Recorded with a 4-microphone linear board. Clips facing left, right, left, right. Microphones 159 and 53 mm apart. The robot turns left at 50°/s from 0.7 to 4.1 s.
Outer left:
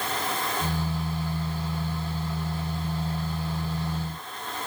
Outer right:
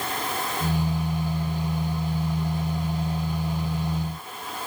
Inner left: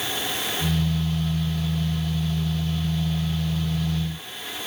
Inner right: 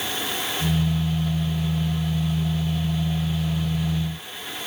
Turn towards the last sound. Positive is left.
No sound to turn to.